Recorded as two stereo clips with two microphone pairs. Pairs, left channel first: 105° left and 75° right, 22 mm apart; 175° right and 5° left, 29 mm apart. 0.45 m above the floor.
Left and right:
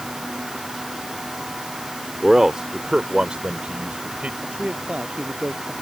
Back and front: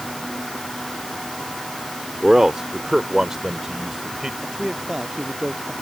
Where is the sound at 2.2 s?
30° right; by 4.3 s 65° right.